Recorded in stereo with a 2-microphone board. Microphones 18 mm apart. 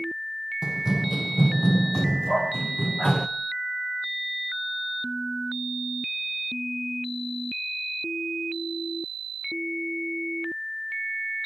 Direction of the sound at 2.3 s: 50° left (ahead or behind).